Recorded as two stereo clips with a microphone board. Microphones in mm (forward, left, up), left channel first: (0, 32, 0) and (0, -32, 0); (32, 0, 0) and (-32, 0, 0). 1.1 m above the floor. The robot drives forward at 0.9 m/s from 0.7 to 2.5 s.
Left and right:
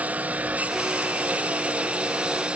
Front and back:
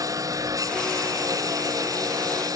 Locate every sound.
0.0 s a lawn mower: 155° right; by 2.6 s 160° right